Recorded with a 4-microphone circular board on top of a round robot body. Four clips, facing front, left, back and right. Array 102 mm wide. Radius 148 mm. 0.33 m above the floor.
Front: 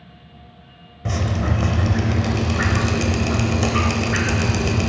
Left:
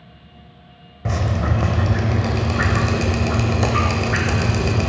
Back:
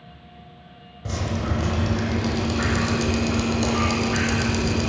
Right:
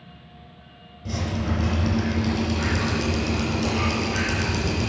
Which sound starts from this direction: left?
Dripping, at 1.1 s.